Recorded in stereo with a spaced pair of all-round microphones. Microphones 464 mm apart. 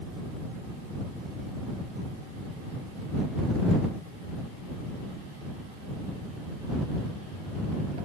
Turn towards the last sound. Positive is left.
No sound to turn to.